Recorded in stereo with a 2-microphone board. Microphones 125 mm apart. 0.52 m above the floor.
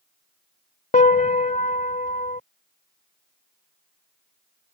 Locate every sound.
0.9 s a piano: 70° left (ahead or behind)